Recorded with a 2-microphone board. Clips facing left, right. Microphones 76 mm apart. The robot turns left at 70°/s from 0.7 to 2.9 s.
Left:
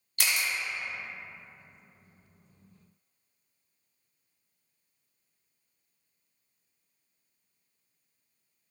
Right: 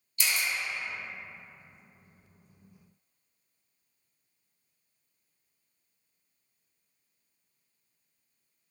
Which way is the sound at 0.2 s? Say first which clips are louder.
Left 1 dB; 60° left (ahead or behind).